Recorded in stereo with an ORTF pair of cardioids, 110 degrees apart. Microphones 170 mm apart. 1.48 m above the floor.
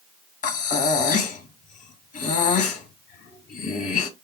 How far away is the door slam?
No door slam in this recording.